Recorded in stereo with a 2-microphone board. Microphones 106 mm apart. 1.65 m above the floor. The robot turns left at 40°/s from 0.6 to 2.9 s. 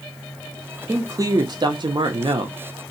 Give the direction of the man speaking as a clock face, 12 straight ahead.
1 o'clock.